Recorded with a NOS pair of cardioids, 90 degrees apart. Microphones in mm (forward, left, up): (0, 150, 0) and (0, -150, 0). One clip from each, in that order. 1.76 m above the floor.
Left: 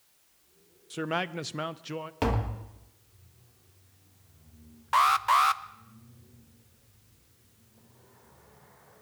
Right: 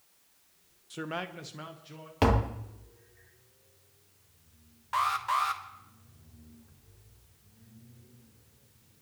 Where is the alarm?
30° left, 0.7 m.